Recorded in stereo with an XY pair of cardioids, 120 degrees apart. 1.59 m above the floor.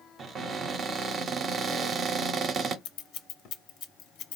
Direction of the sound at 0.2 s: 50° right.